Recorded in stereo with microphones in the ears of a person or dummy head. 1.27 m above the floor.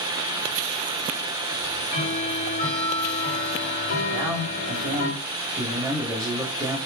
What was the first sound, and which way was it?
Ticking, 50° left (ahead or behind).